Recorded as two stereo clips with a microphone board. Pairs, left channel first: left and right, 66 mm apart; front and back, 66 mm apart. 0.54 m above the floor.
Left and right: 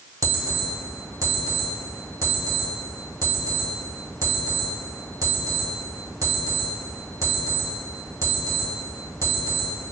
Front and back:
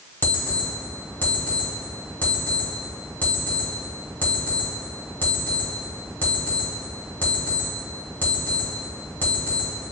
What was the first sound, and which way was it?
An alarm clock, 60° right.